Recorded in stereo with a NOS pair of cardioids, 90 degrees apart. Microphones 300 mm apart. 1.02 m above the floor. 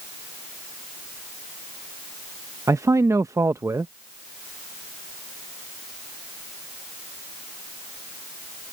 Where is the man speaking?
10° right.